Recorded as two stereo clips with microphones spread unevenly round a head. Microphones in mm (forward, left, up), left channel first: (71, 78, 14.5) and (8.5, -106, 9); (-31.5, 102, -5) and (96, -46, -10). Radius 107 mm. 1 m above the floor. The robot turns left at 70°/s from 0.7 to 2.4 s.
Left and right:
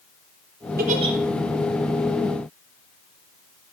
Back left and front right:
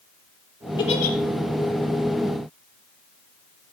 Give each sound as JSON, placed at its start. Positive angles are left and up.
{"t": 0.8, "sound": "a giggle", "azimuth_deg": -155, "distance_m": 4.0}